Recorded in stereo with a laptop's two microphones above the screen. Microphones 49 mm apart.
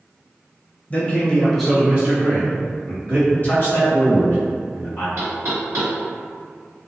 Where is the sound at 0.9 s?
30° left (ahead or behind), 0.6 m; by 3.2 s 65° right (ahead or behind), 1.0 m.